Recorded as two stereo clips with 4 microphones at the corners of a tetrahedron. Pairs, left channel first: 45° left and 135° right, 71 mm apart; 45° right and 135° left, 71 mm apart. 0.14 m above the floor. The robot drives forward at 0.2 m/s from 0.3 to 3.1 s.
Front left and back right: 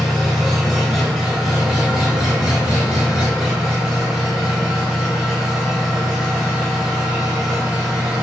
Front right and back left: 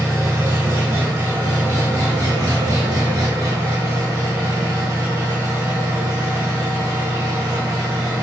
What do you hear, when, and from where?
0.0 s an engine running: 140° left, 1.3 m; by 8.2 s 155° left, 1.7 m